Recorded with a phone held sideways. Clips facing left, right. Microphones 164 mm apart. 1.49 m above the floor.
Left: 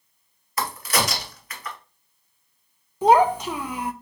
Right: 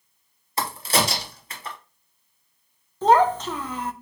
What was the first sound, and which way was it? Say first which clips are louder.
A crack: right 1 dB; 30° right (ahead or behind).